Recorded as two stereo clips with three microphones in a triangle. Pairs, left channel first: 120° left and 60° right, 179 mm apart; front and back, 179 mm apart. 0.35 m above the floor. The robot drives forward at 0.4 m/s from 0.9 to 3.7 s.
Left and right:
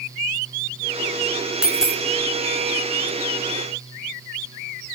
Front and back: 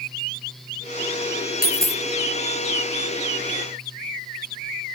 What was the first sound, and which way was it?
A dropped coin, 25° left.